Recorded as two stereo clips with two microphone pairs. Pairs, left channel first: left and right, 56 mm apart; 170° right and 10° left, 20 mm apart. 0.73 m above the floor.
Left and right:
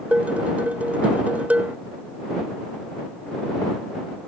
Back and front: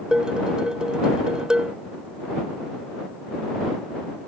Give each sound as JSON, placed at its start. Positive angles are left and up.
{"t": 0.1, "sound": "dishes clattering", "azimuth_deg": -25}